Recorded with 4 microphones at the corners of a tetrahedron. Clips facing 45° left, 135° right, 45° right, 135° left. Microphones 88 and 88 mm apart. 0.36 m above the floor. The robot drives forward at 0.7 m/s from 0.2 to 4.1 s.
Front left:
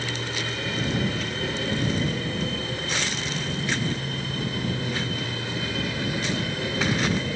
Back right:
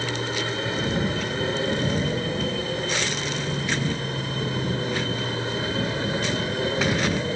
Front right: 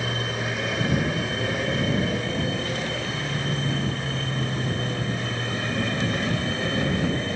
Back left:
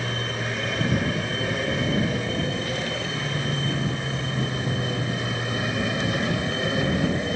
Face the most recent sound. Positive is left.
turn(degrees=-160)